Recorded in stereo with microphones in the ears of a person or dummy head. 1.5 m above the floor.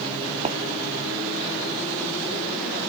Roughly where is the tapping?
Right.